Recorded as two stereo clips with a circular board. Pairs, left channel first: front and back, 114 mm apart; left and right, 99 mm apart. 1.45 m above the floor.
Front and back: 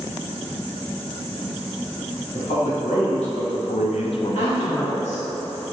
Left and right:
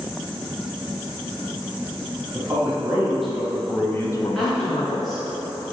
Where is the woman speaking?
Straight ahead, 1.7 m.